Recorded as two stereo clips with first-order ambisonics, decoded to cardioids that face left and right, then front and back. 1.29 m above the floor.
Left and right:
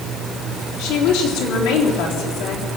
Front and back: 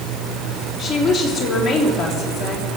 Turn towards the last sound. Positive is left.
turn(degrees=85)